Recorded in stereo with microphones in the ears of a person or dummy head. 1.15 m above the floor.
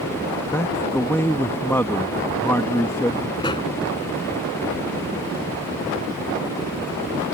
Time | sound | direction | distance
0.5 | a man speaking | 10° left (ahead or behind) | ?
3.4 | a pop | 20° left (ahead or behind) | ?